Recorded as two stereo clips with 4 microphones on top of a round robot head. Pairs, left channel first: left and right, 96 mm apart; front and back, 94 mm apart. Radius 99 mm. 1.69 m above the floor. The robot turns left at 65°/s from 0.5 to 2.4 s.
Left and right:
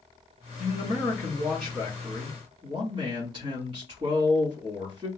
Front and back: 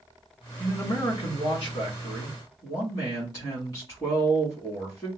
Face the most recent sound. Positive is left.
turn(degrees=-55)